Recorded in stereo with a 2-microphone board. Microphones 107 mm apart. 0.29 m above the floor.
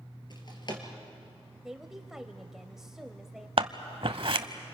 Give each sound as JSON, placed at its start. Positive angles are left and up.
{"t": 0.3, "sound": "a drawer", "side_deg": 45, "distance_m": 3.0}
{"t": 1.6, "sound": "a woman speaking", "side_deg": -5, "distance_m": 1.0}
{"t": 3.6, "sound": "scissors", "side_deg": -60, "distance_m": 0.8}